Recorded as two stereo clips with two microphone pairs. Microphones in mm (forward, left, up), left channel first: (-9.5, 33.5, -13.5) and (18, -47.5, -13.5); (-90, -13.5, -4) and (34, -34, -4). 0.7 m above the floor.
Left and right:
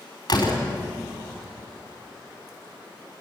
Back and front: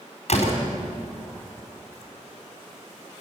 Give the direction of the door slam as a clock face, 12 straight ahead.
7 o'clock.